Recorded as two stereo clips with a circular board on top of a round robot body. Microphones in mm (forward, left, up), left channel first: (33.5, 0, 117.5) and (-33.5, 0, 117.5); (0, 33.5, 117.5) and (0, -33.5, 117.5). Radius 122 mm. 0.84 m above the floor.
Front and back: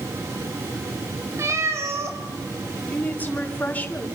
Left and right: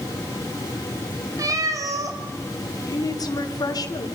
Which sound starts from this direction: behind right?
A cat meowing, at 1.4 s.